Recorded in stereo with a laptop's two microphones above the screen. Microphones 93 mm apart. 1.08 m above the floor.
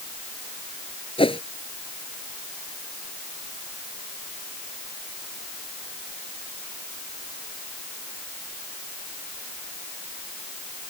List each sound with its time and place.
1.2 s a whoosh: 85° left